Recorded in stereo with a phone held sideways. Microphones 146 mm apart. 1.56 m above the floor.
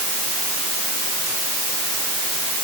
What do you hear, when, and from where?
Only background noise.